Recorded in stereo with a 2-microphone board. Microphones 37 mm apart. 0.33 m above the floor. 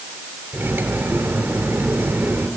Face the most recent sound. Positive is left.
turn(degrees=-60)  # may be behind; listen again after turning